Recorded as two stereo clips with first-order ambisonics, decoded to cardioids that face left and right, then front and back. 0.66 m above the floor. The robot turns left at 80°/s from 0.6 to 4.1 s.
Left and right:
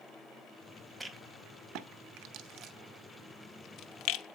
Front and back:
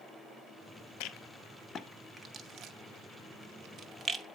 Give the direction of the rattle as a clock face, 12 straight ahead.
12 o'clock.